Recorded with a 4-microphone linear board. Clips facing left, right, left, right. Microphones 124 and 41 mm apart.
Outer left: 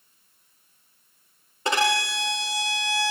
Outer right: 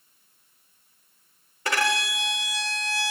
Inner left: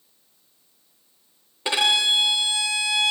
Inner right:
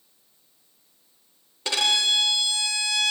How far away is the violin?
About 0.9 m.